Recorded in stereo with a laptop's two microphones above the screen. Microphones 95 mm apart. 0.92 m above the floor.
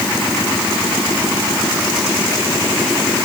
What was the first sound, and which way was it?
Only background noise.